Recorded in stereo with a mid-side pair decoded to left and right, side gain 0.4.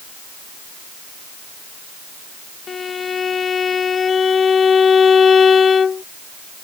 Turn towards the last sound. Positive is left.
turn(degrees=50)